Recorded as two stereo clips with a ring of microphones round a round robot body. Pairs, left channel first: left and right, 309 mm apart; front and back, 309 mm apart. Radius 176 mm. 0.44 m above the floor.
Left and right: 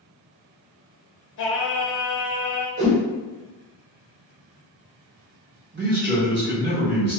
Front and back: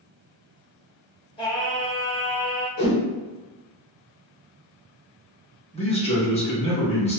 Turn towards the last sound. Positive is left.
turn(degrees=-60)